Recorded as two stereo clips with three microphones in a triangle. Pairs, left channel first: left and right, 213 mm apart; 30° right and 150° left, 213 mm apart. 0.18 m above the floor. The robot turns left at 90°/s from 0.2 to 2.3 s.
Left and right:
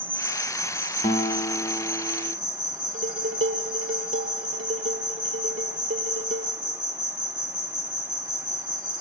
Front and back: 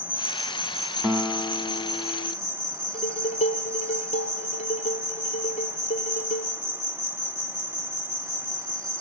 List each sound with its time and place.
0.0 s an insect: 80° left, 1.5 m; by 9.0 s 110° right, 1.5 m
1.0 s a guitar: 65° left, 0.7 m; by 2.4 s 45° right, 0.7 m
2.9 s dishes clattering: 85° right, 2.5 m